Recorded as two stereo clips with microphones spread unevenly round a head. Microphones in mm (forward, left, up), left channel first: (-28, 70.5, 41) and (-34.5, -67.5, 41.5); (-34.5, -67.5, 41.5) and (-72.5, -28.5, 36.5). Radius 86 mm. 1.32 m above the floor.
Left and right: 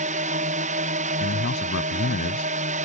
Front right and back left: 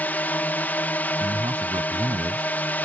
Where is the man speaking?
80° left.